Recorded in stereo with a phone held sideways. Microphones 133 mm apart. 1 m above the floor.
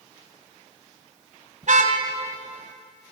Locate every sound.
1.6 s a car horn: 60° right (ahead or behind), 3.5 m